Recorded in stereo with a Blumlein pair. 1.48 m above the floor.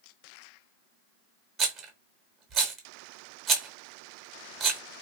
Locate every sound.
1.6 s a rattle: 30° right, 0.8 m